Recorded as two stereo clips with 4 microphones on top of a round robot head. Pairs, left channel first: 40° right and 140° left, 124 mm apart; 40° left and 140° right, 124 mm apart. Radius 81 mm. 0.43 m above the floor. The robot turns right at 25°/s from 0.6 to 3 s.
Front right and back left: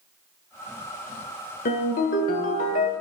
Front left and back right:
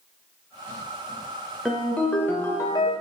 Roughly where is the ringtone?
Ahead right.